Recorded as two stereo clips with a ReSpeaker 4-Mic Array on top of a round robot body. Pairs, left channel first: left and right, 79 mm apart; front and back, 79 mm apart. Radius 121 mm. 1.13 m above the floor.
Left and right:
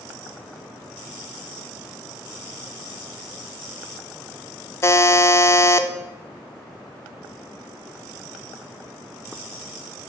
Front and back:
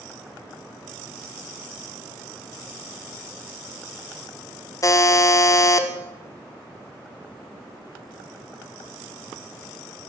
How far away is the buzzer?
About 0.7 m.